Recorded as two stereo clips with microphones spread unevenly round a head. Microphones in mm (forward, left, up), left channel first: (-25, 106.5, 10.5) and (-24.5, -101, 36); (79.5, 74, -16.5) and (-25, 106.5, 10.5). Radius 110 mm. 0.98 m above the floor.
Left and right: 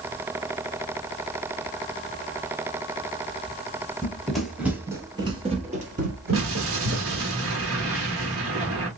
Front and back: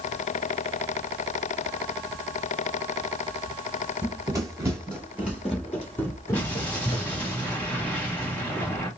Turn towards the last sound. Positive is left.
turn(degrees=-110)